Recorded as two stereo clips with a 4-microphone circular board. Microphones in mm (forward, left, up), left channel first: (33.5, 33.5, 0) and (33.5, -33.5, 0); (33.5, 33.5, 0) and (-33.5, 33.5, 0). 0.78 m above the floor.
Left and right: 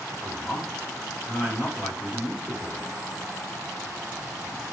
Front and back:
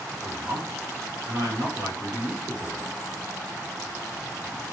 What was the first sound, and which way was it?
A man speaking, 175° right.